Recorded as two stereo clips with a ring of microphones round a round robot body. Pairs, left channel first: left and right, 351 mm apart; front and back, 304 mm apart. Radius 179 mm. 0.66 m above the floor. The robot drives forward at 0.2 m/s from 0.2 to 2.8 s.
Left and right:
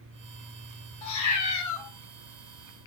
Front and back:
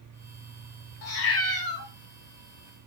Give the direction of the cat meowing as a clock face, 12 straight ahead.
11 o'clock.